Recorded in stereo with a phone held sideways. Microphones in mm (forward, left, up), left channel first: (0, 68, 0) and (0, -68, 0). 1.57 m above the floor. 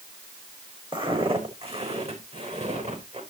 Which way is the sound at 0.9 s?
40° right (ahead or behind).